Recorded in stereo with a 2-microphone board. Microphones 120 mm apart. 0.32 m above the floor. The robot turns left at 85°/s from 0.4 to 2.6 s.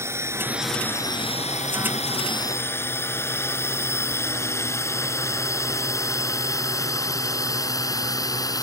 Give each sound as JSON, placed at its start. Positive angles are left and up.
{"t": 0.0, "sound": "a drone", "side_deg": -20}